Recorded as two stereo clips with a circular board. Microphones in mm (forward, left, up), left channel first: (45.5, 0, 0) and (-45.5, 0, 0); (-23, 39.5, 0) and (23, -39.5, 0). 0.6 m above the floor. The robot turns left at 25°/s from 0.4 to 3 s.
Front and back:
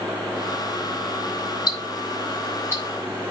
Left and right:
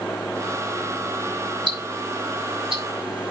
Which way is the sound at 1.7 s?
30° right.